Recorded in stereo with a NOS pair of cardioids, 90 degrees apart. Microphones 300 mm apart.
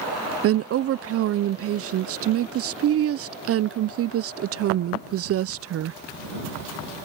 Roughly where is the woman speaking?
Ahead right.